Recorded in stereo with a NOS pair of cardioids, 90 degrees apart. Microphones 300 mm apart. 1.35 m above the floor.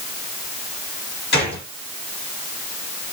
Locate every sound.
1.3 s a gunshot: 35° left, 3 m